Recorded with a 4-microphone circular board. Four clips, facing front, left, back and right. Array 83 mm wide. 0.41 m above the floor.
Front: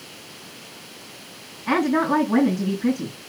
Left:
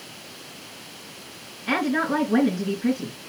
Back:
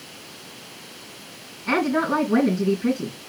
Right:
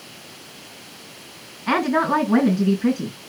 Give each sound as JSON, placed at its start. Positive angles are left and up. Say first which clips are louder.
{"t": 1.7, "sound": "a woman speaking", "louder": "right 4 dB, front 1 dB", "azimuth_deg": -70, "distance_m": 4.5}